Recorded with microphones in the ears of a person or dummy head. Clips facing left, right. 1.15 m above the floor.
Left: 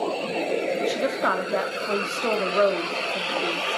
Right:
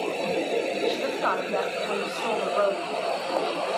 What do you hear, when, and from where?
0.8 s a woman speaking: 35° left (ahead or behind), 3 m